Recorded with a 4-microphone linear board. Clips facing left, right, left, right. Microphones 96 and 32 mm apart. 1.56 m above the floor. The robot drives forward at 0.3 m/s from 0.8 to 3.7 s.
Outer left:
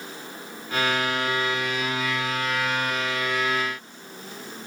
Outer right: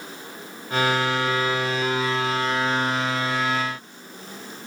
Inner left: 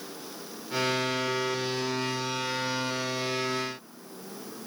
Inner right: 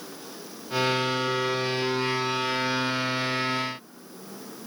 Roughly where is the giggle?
I don't hear a giggle.